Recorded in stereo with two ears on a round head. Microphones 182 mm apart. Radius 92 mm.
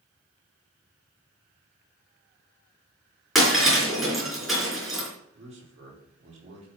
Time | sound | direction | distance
3.4 | breaking glass | centre (ahead or behind) | 4.5 m
5.3 | a man speaking | 30° right (ahead or behind) | 5 m